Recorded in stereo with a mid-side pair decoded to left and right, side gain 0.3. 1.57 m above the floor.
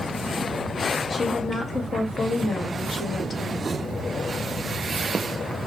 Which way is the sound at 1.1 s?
55° left.